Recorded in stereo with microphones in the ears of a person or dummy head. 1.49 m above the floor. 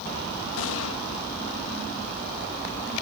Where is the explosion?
85° left.